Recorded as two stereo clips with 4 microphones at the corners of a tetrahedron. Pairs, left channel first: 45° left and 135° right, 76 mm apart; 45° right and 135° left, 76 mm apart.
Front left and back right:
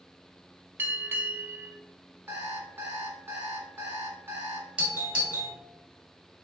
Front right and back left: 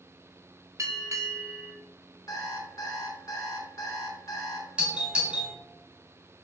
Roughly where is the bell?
Behind.